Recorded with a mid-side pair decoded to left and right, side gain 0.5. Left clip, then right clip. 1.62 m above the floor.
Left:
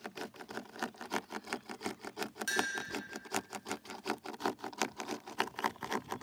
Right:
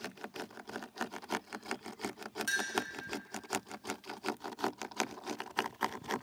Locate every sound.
2.5 s a clink: straight ahead, 1.7 m